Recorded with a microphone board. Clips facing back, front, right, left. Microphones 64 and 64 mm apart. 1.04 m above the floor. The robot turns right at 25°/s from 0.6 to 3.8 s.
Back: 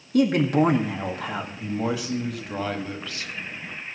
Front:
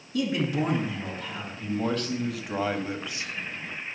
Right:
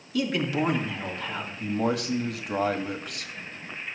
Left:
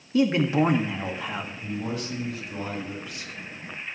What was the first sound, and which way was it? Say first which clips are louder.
A man speaking: back 7 dB, left 5 dB; 150° left.